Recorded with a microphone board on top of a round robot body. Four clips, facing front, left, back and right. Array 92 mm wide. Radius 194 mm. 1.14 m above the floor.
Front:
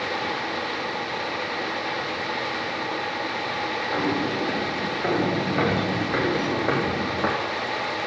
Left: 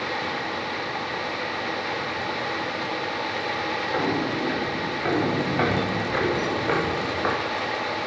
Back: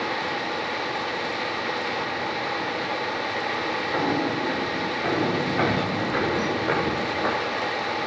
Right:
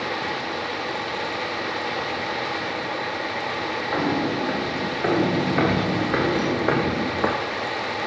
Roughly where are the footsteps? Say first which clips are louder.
Right 3 dB, even; right.